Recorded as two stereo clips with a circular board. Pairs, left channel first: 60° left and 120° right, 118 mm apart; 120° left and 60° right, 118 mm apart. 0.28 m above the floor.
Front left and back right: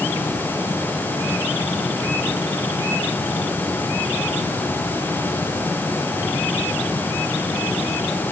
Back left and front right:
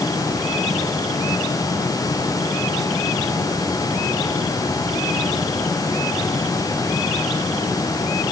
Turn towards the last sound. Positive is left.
No sound to turn to.